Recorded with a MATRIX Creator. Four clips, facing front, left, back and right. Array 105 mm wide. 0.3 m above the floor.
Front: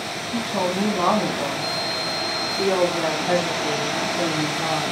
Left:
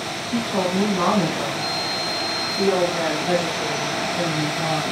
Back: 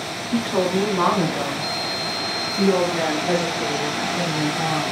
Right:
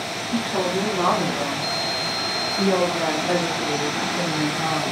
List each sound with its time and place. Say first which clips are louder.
0.3 s a woman speaking: left 1 dB, back 3 dB; 175° left, 3.5 m; by 4.8 s 150° left, 6 m